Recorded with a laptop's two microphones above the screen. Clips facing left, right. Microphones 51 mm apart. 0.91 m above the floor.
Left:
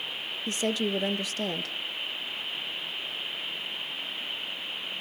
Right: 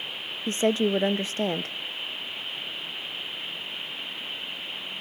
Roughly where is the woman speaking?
Right.